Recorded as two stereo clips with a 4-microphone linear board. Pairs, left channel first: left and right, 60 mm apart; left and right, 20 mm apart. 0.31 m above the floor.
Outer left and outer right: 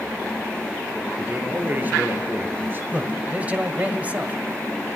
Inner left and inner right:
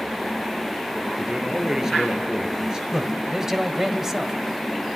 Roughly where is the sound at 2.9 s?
Right.